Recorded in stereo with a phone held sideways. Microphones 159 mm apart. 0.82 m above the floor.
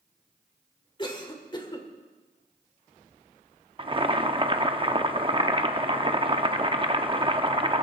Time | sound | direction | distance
1.0 | a cough | 30° left (ahead or behind) | 2.5 m
3.8 | boiling | 35° right (ahead or behind) | 0.7 m